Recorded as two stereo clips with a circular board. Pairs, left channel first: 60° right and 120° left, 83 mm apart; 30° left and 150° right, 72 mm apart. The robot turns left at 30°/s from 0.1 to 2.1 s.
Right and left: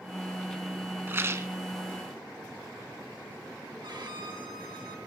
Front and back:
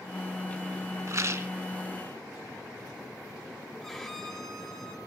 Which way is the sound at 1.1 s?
Straight behind.